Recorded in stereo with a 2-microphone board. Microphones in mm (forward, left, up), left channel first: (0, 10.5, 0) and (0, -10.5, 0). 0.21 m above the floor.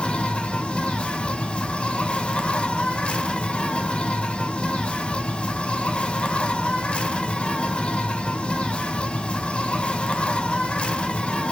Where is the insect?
70° left (ahead or behind), 0.8 m.